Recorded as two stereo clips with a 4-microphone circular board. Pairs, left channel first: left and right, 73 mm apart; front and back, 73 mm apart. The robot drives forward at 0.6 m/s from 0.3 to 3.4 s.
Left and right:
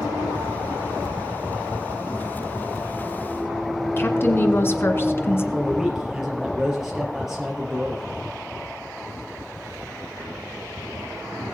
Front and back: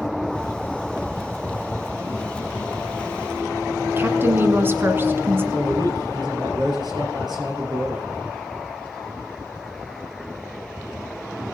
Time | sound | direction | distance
4.0 | a woman speaking | 135° left | 1.7 m
5.5 | a man speaking | 175° right | 4 m